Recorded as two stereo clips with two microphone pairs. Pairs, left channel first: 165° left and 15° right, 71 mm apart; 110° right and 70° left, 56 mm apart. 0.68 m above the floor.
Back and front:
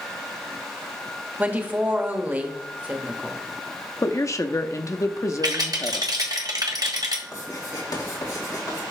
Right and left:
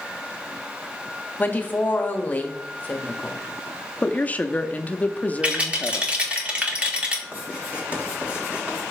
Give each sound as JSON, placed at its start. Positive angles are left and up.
{"t": 1.4, "sound": "a woman speaking", "azimuth_deg": -70, "distance_m": 1.2}
{"t": 4.0, "sound": "a woman speaking", "azimuth_deg": -165, "distance_m": 0.7}
{"t": 5.4, "sound": "a rattle", "azimuth_deg": 0, "distance_m": 1.6}
{"t": 7.3, "sound": "writing", "azimuth_deg": 135, "distance_m": 3.5}